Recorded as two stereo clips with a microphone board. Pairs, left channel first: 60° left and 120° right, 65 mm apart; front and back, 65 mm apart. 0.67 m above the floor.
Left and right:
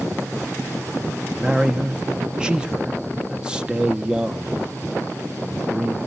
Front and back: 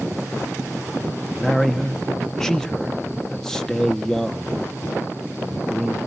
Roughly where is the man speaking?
Ahead right.